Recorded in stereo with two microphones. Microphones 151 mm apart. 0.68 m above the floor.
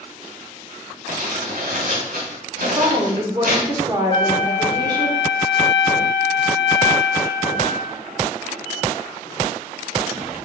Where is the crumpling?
80° right, 2.5 m.